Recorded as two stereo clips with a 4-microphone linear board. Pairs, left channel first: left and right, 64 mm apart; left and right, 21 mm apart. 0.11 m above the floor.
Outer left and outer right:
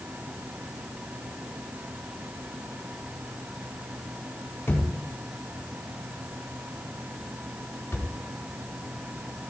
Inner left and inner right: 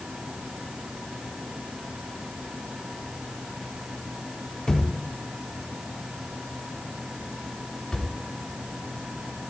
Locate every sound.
4.7 s a thud: 30° left (ahead or behind), 4 m